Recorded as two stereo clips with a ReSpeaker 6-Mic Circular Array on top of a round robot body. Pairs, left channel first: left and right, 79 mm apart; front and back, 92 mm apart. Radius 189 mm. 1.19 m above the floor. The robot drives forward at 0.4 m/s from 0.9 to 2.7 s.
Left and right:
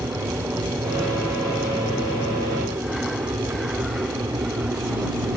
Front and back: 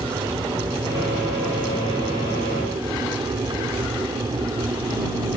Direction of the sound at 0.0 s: 140° right.